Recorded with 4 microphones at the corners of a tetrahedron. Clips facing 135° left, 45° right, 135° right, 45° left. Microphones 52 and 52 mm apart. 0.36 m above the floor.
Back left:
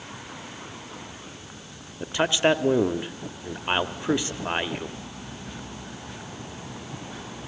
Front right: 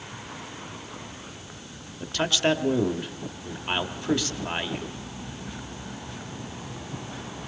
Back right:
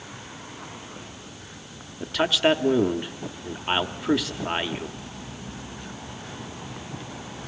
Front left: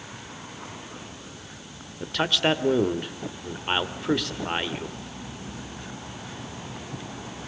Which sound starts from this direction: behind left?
A man speaking, at 2.0 s.